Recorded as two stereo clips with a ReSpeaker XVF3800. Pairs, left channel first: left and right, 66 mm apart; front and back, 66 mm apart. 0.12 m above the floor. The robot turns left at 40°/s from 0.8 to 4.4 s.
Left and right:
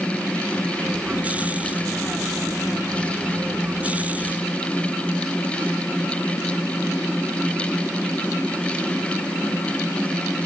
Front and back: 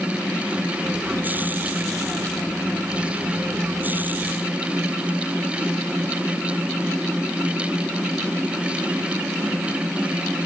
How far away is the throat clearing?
No throat clearing in this recording.